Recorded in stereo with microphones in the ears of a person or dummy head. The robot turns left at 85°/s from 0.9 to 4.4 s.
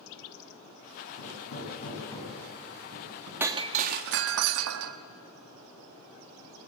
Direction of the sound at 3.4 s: 15° right.